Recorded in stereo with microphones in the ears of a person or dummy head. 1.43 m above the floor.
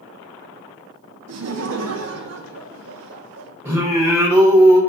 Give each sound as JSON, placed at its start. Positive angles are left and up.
{"t": 1.3, "sound": "laughter", "side_deg": -65, "distance_m": 0.6}
{"t": 3.6, "sound": "singing", "side_deg": -10, "distance_m": 0.8}